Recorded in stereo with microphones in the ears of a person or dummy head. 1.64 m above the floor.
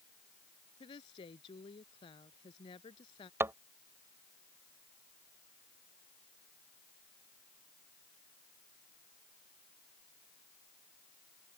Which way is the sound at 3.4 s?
15° right (ahead or behind).